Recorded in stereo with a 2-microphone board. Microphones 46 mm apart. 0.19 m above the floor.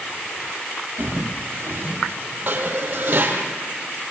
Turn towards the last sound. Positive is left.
turn(degrees=-45)  # may be behind; listen again after turning